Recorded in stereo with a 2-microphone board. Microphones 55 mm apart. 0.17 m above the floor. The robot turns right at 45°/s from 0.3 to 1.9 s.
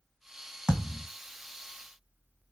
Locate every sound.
0.7 s a thud: 20° right (ahead or behind), 1.5 m; by 1.1 s centre (ahead or behind), 1.5 m